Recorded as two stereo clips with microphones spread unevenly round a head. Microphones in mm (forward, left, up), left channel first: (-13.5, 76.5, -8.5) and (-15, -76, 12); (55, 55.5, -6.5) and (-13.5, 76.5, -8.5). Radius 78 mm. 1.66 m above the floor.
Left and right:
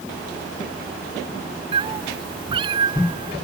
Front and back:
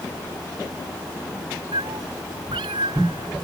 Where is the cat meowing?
145° right; by 3.4 s 150° right.